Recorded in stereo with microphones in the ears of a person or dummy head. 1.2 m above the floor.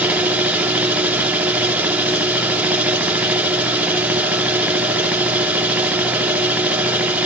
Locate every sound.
0.0 s a machine running: 10° right (ahead or behind), 0.9 m